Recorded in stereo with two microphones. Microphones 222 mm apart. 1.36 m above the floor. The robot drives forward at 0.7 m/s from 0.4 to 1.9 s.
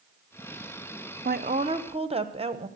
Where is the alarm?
No alarm in this recording.